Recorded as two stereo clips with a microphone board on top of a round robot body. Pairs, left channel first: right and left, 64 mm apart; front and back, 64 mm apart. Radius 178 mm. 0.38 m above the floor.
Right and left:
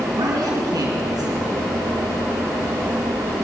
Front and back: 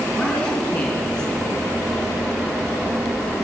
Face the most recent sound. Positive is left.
turn(degrees=70)